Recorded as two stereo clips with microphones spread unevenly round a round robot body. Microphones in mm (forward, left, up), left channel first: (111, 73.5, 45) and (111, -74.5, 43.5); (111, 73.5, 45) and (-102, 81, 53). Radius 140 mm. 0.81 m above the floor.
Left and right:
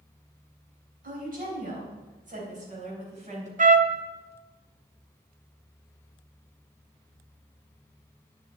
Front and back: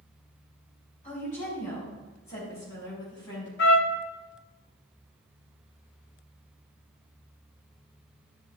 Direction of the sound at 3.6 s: 55° right.